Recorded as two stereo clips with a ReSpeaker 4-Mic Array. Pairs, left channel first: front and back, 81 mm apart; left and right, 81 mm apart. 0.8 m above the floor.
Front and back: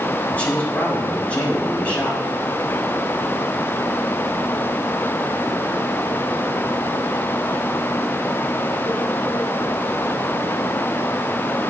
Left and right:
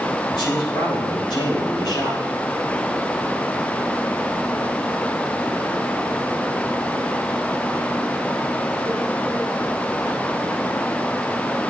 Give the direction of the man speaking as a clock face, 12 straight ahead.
10 o'clock.